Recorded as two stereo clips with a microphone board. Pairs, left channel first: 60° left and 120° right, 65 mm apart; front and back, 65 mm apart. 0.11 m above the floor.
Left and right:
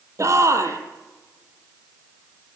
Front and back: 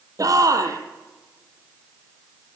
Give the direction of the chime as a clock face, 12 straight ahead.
I don't hear a chime.